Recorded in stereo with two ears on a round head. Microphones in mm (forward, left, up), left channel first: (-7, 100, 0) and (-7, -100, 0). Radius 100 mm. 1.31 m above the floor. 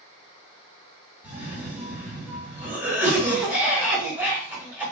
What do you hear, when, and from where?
1.2 s a cough: 10° right (ahead or behind), 1.2 m